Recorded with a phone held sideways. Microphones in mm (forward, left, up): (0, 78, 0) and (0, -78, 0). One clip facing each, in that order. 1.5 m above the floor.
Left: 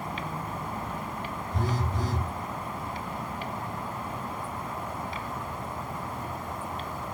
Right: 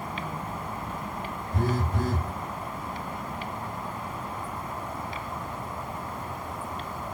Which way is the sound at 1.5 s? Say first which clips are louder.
Right 4 dB; 55° right (ahead or behind).